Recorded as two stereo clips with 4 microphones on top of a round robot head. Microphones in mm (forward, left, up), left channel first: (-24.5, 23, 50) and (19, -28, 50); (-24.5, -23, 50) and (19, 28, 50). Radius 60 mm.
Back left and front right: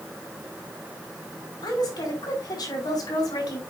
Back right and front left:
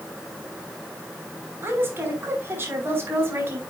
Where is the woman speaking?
105° left, 5.5 m.